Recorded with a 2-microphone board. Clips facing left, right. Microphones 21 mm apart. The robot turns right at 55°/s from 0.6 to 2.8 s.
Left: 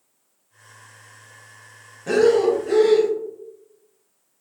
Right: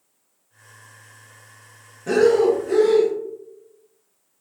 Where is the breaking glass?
No breaking glass in this recording.